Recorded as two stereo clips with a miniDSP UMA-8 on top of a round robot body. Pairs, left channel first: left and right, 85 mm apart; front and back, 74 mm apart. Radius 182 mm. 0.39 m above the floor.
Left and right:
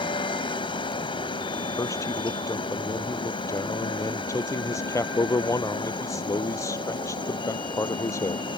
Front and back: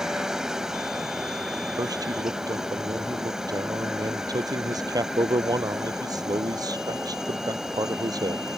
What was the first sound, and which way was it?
A helicopter, 100° left.